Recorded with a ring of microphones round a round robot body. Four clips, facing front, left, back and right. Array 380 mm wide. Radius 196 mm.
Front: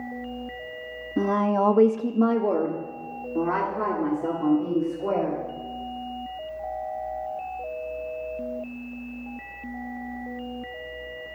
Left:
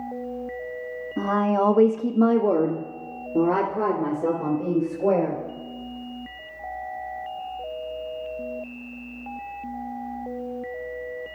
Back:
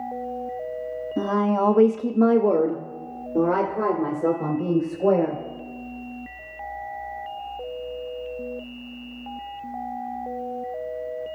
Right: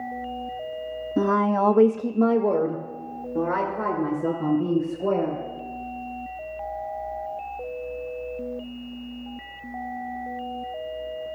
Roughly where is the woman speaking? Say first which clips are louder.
Right 1 dB, even; ahead right.